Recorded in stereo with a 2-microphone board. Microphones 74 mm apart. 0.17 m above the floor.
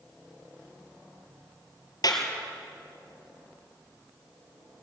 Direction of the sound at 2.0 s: 55° left (ahead or behind).